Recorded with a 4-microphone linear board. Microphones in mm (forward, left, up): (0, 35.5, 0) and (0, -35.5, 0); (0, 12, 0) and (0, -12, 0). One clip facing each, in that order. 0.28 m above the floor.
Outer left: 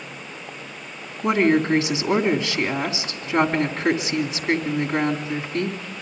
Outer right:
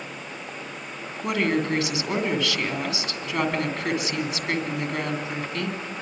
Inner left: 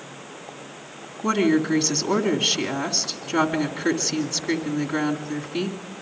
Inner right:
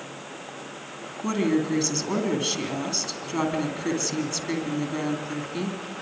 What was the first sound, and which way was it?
A woman speaking, 25° left (ahead or behind).